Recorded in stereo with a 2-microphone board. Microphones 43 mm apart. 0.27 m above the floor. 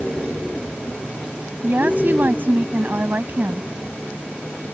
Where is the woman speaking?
45° right (ahead or behind).